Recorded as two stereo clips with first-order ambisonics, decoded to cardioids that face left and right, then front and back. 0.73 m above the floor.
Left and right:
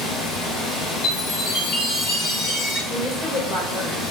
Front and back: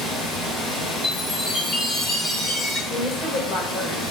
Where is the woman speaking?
5° right, 1.2 m.